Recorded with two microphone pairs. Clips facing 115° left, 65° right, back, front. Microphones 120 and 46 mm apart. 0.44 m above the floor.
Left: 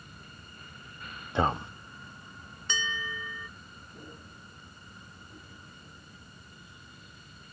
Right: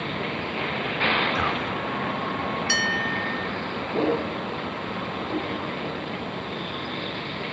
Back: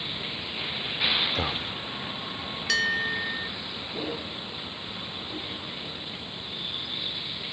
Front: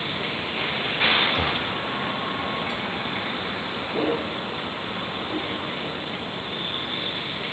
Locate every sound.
0.0 s a vehicle: 55° right
1.4 s a man speaking: 85° left
2.7 s a bell: 170° right